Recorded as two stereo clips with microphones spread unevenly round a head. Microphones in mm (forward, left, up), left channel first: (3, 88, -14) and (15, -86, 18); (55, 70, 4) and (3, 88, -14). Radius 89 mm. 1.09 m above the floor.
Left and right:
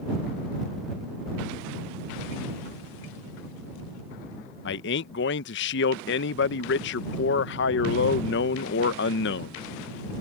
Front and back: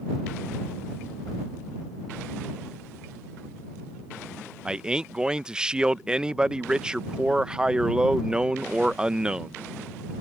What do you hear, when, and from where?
4.7 s a man speaking: 90° left